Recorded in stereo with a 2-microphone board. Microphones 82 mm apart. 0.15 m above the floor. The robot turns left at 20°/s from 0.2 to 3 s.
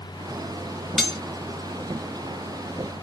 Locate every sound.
1.0 s cutlery clinking: 5° left (ahead or behind), 0.7 m